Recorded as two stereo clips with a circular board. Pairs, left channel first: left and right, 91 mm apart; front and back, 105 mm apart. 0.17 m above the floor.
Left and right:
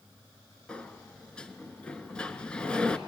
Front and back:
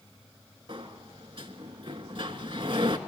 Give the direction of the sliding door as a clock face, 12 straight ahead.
6 o'clock.